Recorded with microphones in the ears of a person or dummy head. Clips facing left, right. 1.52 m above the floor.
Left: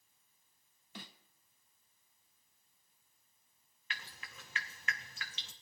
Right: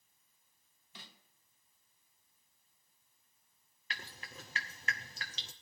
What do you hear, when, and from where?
0.9 s a snare drum: 50° left (ahead or behind), 1.0 m
3.9 s dripping: 30° right (ahead or behind), 0.7 m